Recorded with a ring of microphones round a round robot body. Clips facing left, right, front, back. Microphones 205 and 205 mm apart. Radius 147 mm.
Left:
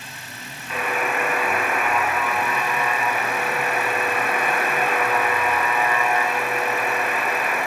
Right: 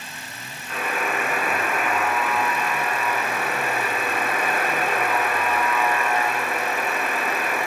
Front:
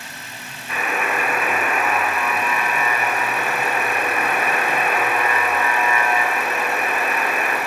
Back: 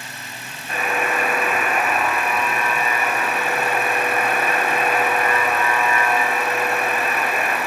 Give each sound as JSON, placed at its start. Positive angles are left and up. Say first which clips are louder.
{"t": 0.7, "sound": "a buzzer", "louder": "left 2 dB, back 1 dB", "azimuth_deg": 130, "distance_m": 3.0}